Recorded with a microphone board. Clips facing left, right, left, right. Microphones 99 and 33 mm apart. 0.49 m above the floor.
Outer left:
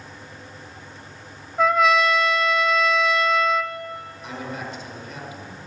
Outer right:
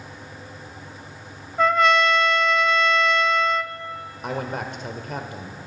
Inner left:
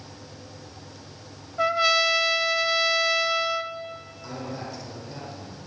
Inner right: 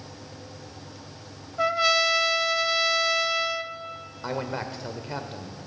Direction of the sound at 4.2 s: 55° right (ahead or behind).